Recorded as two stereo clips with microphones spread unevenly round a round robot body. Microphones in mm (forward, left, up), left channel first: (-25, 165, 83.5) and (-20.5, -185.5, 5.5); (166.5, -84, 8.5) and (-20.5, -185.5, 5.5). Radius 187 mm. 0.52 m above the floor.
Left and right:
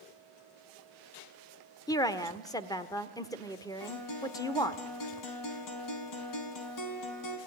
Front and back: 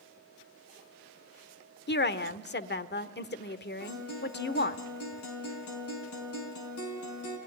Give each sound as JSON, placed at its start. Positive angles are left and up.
{"t": 1.9, "sound": "a woman speaking", "azimuth_deg": 5, "distance_m": 1.5}
{"t": 3.8, "sound": "a guitar", "azimuth_deg": 50, "distance_m": 4.5}